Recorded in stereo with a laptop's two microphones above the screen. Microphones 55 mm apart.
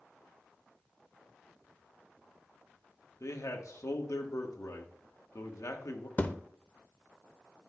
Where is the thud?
30° left (ahead or behind), 0.6 m.